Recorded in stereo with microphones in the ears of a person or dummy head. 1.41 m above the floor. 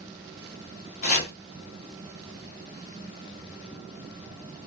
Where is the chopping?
45° left (ahead or behind), 0.6 m.